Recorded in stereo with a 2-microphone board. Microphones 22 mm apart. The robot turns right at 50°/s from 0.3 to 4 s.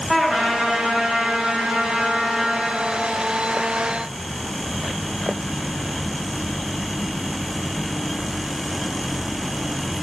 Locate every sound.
0.1 s a trumpet: 155° right, 4.5 m; by 2.7 s 35° right, 4.5 m